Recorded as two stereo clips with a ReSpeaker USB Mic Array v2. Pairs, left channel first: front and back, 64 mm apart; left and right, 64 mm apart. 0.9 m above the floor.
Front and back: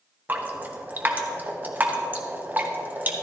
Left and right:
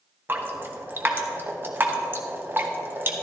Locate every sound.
0.3 s dripping: 130° right, 1.1 m